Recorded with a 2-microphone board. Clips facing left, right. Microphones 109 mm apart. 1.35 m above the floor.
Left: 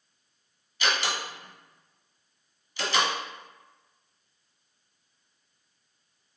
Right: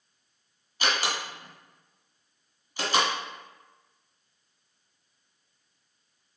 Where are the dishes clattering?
I don't hear dishes clattering.